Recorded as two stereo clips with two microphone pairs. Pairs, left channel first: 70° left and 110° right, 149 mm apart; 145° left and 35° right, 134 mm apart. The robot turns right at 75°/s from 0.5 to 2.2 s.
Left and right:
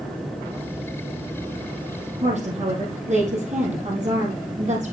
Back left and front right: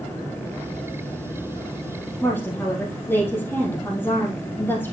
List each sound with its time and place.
2.2 s a woman speaking: 145° right, 4 m